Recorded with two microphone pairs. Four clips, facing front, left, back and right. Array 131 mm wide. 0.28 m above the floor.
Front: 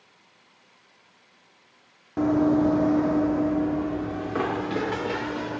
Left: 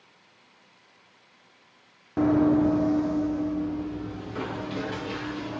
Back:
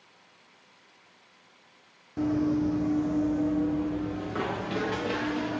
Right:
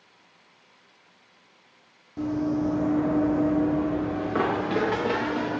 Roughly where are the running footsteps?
Ahead left.